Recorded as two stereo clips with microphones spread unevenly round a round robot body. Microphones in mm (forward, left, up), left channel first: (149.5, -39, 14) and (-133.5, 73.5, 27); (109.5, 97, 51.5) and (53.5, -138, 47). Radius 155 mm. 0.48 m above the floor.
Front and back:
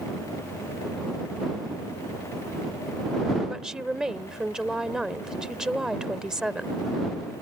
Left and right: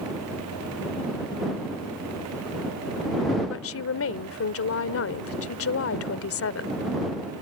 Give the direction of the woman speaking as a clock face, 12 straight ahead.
10 o'clock.